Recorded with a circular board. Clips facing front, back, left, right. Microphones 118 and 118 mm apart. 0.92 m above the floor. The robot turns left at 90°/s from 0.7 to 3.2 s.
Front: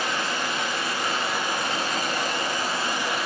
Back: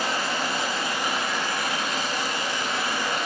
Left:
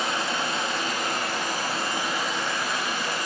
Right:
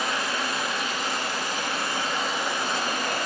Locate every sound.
0.0 s running water: 140° left, 1.0 m; by 3.3 s 85° right, 1.0 m